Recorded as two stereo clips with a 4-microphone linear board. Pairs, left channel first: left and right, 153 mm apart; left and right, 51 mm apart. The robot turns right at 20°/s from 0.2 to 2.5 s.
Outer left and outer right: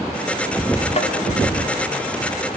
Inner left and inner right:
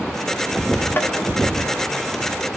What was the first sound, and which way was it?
Tapping, 40° left (ahead or behind).